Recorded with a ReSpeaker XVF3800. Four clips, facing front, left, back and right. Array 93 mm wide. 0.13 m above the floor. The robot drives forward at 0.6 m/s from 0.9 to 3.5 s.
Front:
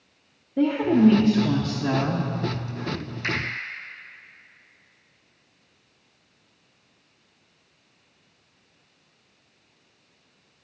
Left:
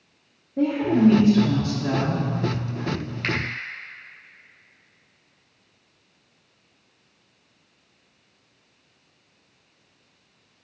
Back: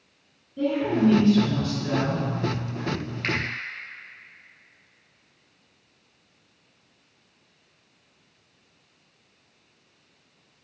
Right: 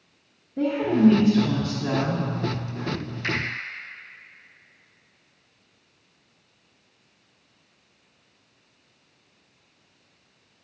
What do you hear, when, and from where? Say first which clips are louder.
0.6 s a woman speaking: left 1 dB, front 4 dB; 5° left, 1.9 m; by 2.3 s 15° left, 1.3 m
3.2 s a finger snap: left 1 dB, even; 130° left, 2 m